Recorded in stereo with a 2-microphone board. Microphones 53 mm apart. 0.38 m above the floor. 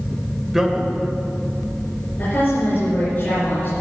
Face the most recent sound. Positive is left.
turn(degrees=40)  # may be behind; listen again after turning